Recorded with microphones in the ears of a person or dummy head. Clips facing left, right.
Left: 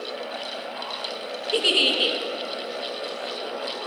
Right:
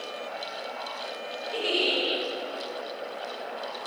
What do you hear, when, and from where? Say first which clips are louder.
1.5 s a giggle: left 3 dB; 60° left (ahead or behind), 1.7 m